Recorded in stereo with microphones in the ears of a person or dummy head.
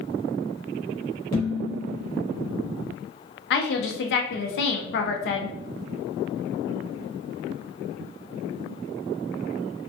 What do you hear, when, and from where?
1.3 s dishes clattering: 20° left (ahead or behind), 0.7 m
3.5 s a woman speaking: 60° left (ahead or behind), 0.6 m